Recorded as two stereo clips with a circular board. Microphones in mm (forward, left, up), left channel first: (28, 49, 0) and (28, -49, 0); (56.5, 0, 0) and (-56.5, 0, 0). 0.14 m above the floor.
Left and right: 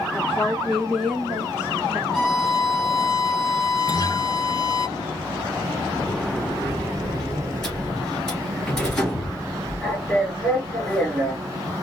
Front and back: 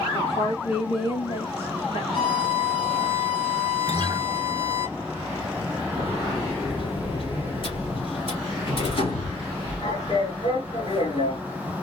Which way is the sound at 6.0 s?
5° left.